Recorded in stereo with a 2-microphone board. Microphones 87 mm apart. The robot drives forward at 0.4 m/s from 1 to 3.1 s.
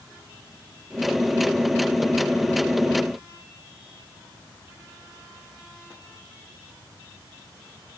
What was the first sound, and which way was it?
Only background noise.